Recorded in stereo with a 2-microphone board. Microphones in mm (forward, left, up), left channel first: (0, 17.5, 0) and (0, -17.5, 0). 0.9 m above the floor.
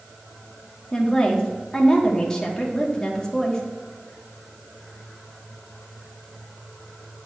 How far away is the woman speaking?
About 1.5 m.